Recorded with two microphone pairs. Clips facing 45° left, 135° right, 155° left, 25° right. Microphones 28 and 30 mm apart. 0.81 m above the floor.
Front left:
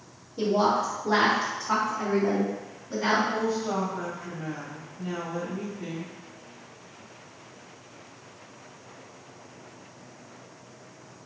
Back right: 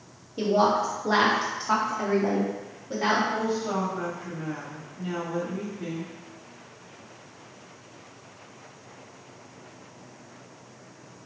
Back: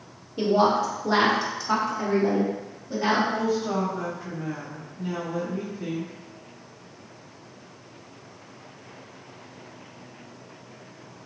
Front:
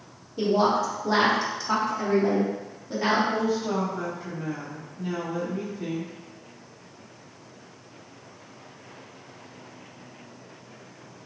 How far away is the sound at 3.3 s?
About 1.5 m.